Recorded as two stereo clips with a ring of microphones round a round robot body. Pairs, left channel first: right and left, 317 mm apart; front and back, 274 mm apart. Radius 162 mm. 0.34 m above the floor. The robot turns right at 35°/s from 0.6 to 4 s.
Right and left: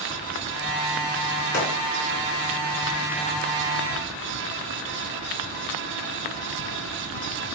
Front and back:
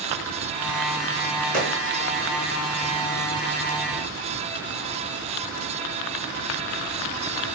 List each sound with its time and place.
1.5 s a gunshot: 135° right, 3.5 m; by 1.8 s 125° right, 3.5 m